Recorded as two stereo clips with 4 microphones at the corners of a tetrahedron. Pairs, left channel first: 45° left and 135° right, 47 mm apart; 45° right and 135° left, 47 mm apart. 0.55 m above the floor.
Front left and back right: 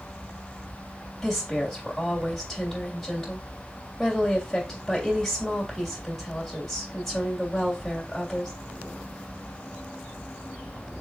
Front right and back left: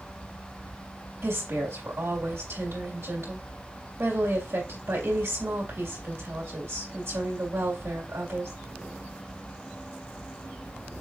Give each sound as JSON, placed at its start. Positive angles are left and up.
{"t": 1.2, "sound": "a woman speaking", "azimuth_deg": 130, "distance_m": 3.0}